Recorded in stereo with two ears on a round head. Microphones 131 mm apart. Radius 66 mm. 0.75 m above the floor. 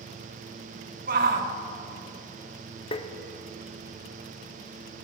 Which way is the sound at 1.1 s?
65° right (ahead or behind).